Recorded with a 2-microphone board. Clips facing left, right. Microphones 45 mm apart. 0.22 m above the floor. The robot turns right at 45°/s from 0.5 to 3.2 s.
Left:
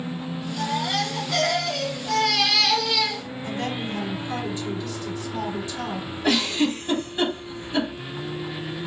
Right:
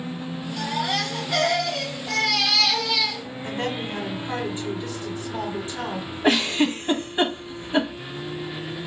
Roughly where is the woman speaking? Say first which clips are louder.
Right 1 dB; right.